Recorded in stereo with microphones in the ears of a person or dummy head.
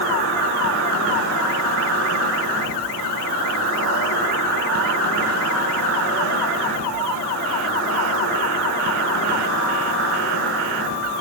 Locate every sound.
0.0 s an insect: 55° right (ahead or behind), 6.5 m